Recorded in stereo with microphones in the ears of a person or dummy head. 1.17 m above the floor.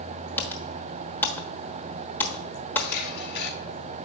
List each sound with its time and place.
0.4 s typing on a keyboard: 10° left (ahead or behind), 1.1 m
2.8 s a camera shutter: 65° left (ahead or behind), 4 m